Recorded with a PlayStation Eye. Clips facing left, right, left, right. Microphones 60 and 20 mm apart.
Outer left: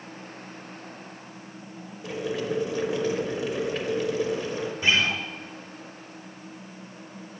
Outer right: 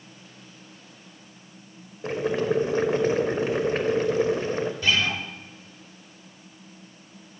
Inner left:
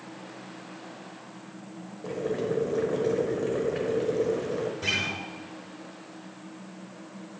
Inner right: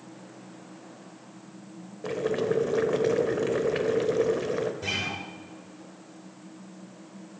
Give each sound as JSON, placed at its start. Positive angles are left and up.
{"t": 2.0, "sound": "boiling", "side_deg": -40, "distance_m": 0.7}
{"t": 4.8, "sound": "a guitar", "side_deg": 20, "distance_m": 1.2}